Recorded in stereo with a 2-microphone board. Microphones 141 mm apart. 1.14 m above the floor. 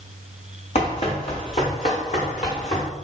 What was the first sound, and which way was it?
Running footsteps, 50° left (ahead or behind).